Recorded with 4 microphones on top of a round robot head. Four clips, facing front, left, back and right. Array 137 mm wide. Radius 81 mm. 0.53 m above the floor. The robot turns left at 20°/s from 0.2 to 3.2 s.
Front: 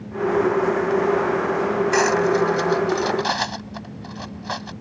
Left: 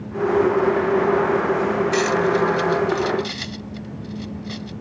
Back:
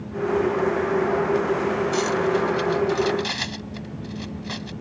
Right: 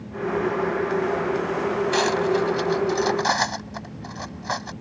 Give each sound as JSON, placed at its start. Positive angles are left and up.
{"t": 1.9, "sound": "cutlery clinking", "azimuth_deg": -30}